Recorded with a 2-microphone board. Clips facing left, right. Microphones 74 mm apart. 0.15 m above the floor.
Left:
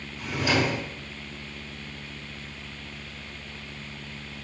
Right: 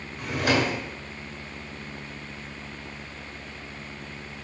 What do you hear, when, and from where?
0.2 s a drawer: 50° right (ahead or behind), 0.8 m